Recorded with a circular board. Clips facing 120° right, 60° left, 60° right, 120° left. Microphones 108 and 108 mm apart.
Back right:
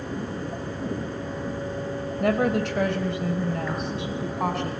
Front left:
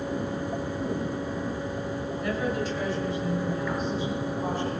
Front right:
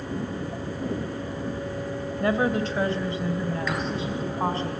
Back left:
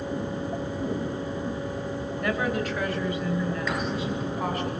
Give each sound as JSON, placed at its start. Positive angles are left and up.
{"t": 2.2, "sound": "a woman speaking", "azimuth_deg": -120, "distance_m": 2.0}